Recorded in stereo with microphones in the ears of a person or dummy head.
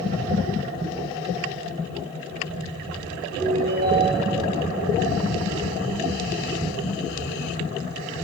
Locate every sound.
3.4 s a ringtone: 60° right (ahead or behind), 2 m